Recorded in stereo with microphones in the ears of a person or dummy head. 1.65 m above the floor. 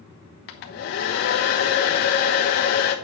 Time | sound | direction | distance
0.5 | a hair dryer | 50° left (ahead or behind) | 1.1 m